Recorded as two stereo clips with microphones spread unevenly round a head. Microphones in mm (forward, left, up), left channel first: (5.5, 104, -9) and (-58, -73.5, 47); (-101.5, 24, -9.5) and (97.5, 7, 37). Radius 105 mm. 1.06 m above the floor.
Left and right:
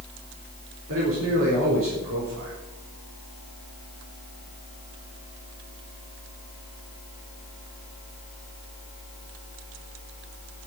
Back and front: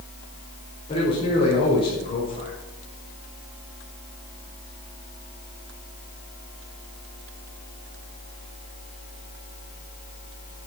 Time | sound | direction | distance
0.9 | a man speaking | 120° right | 4 m